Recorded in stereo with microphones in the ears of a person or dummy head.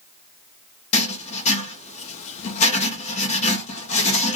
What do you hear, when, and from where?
0.9 s writing: 35° left (ahead or behind), 0.8 m